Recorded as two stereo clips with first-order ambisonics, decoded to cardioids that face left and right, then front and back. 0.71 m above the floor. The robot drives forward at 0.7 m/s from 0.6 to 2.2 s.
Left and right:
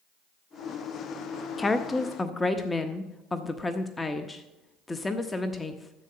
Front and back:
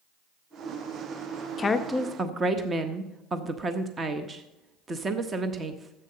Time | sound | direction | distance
1.6 | a woman speaking | 30° left | 0.7 m